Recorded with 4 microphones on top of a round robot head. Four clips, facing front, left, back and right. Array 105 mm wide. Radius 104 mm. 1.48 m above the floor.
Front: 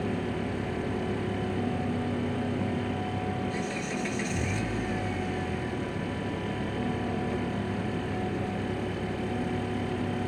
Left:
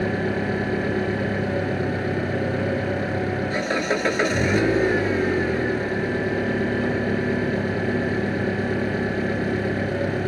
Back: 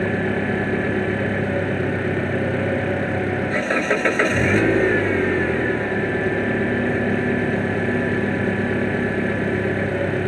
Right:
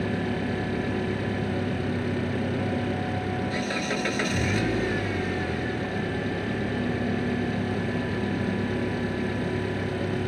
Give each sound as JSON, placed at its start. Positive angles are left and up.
{"t": 0.0, "sound": "an engine running", "azimuth_deg": 150}